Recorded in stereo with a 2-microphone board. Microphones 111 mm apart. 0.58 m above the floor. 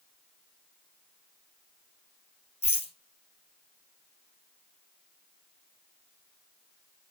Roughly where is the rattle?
Left.